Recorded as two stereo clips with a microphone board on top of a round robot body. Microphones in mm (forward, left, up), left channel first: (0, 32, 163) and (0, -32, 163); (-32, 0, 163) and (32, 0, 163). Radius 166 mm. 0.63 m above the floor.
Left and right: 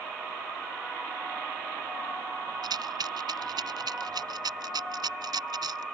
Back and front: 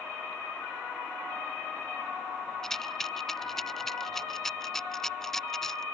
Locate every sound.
2.6 s a rattle: 95° right